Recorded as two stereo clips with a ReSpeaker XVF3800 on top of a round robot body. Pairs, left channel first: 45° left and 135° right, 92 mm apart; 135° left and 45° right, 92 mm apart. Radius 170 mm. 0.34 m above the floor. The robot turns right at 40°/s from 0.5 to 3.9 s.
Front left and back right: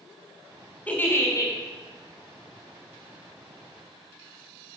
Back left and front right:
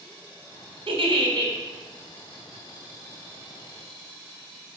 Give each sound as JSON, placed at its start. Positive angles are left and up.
{"t": 0.9, "sound": "a giggle", "azimuth_deg": -30, "distance_m": 2.5}